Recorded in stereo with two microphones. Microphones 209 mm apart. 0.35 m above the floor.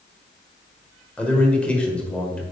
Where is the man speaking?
5° left (ahead or behind), 1.1 m.